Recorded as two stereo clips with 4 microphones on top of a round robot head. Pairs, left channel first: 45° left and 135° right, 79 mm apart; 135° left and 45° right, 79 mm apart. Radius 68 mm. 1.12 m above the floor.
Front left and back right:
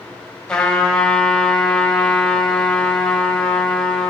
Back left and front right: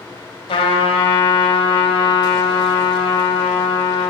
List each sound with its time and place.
0.5 s a trumpet: 125° left, 3.5 m